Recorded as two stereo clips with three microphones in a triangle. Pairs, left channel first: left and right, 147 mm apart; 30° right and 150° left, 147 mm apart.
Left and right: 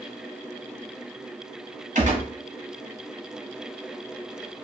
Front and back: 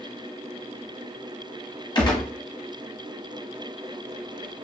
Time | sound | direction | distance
1.9 | a gunshot | 85° right | 1.3 m